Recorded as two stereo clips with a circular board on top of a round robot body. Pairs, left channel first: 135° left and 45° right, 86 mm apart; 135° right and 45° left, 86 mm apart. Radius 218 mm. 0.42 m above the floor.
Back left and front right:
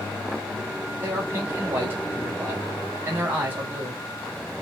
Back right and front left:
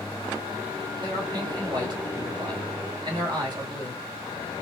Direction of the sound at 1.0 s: 20° left.